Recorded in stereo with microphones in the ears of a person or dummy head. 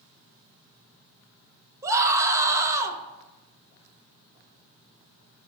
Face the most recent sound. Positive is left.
turn(degrees=-15)  # may be behind; listen again after turning